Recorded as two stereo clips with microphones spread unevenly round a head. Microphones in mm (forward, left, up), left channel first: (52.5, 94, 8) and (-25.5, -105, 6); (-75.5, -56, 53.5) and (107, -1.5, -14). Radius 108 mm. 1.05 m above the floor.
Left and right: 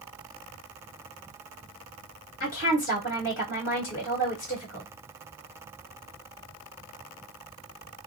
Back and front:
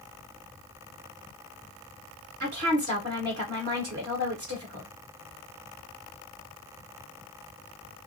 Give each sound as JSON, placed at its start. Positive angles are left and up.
{"t": 2.4, "sound": "a woman speaking", "azimuth_deg": 20, "distance_m": 1.7}